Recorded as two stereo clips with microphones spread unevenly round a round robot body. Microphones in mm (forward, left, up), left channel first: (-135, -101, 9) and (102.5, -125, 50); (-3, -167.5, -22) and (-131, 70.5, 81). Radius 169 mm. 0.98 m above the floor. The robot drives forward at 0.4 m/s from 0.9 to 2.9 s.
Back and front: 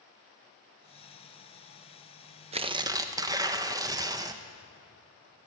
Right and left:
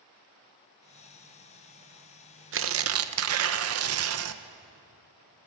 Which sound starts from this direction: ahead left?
Tearing paper, at 2.5 s.